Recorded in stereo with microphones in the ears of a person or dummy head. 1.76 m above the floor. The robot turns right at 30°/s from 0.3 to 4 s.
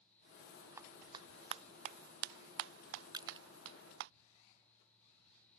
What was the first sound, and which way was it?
A clap, 10° right (ahead or behind).